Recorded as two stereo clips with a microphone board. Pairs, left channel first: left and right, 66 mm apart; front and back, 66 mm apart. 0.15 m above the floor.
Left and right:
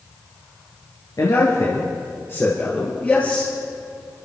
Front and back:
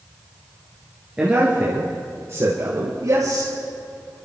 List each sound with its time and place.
1.2 s a man speaking: 110° left, 2.5 m; by 3.5 s 160° left, 4 m